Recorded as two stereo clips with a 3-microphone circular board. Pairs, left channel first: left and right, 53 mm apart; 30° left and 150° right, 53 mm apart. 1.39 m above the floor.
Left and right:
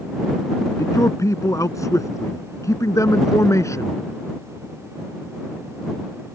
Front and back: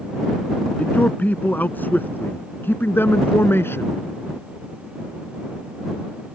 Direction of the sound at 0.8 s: 90° left.